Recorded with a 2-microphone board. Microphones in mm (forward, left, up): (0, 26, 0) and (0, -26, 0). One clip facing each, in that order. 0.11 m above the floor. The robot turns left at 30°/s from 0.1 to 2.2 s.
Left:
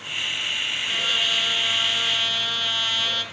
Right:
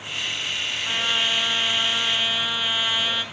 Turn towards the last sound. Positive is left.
turn(degrees=-15)  # may be behind; listen again after turning